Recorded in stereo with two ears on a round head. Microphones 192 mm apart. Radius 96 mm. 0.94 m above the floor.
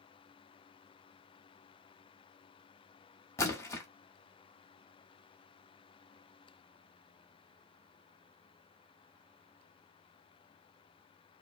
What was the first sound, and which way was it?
A splash, 15° left (ahead or behind).